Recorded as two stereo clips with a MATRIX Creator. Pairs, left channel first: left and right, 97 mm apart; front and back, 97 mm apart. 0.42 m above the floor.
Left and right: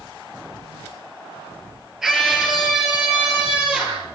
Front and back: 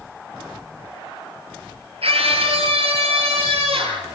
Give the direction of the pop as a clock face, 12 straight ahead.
I don't hear a pop.